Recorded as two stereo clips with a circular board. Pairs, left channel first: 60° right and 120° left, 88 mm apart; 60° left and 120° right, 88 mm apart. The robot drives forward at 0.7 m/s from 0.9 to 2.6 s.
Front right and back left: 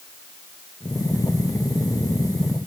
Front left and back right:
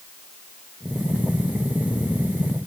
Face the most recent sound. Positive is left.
No sound to turn to.